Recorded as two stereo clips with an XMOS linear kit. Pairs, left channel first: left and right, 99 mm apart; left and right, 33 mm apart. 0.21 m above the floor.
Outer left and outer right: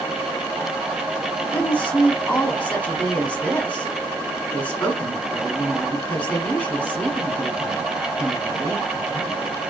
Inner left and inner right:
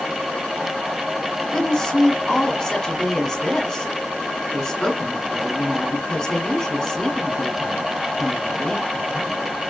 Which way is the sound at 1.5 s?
15° left (ahead or behind).